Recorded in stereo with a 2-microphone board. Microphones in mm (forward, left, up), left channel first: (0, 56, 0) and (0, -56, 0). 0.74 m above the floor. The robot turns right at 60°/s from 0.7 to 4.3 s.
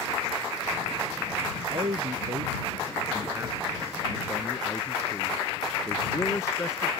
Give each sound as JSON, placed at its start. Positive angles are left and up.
{"t": 1.7, "sound": "a man speaking", "side_deg": -50}